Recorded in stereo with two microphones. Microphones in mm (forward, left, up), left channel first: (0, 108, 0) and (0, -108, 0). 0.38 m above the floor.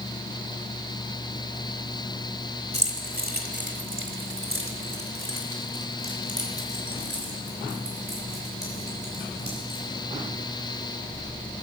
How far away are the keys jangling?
About 1.5 m.